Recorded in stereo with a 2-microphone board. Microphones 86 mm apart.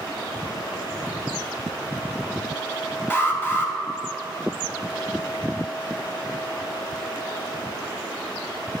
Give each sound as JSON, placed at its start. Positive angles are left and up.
{"t": 3.1, "sound": "an alarm", "side_deg": 25, "distance_m": 1.0}